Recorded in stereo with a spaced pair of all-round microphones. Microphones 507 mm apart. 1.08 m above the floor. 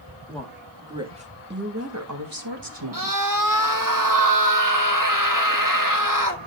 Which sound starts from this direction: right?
A scream, at 2.9 s.